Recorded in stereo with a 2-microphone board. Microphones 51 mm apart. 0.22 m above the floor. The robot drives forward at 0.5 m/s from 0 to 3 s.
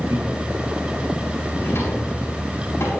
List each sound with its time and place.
0.1 s laughter: 60° right (ahead or behind), 5.5 m
1.6 s a drawer: 60° left (ahead or behind), 7 m; by 2.9 s 65° left (ahead or behind), 6.5 m